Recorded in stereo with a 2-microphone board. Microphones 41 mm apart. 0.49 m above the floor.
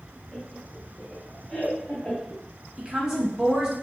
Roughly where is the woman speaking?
Centre.